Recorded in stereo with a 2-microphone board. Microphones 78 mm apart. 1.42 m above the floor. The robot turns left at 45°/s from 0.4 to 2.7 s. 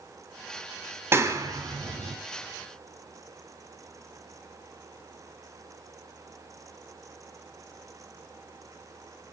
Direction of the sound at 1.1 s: 30° right (ahead or behind).